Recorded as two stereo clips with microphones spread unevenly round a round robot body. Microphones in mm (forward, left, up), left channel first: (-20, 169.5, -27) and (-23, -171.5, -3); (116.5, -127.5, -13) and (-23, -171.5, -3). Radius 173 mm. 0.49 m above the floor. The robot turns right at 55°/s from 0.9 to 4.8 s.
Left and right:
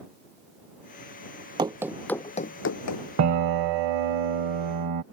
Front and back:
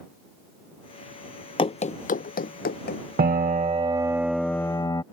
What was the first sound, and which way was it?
Running footsteps, 25° right.